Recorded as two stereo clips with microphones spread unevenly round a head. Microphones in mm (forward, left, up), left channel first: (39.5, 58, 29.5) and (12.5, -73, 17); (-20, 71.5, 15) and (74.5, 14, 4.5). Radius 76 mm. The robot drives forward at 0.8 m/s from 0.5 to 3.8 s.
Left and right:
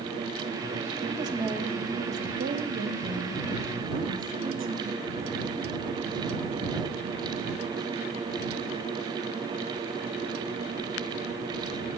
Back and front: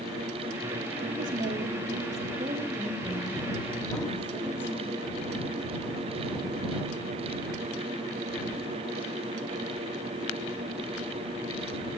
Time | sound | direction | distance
1.1 | a woman speaking | 40° right | 1.6 m